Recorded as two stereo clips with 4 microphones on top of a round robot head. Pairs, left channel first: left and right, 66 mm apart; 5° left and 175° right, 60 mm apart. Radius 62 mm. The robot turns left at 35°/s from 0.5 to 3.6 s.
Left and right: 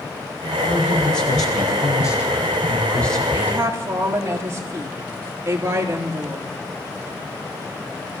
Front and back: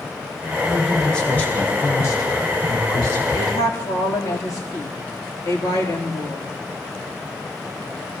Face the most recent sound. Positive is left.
turn(degrees=-40)